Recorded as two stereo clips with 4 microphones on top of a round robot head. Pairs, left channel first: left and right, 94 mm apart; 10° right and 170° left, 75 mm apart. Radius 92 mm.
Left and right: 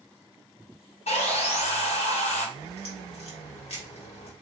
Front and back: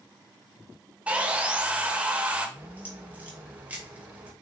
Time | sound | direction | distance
1.1 | sawing | 95° left | 1.7 m
2.6 | a crack | 100° left | 3 m